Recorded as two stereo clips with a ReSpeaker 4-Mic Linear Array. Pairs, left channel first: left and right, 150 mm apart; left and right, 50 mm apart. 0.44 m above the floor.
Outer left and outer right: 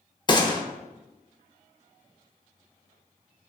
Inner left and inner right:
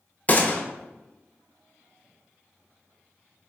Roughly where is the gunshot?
Left.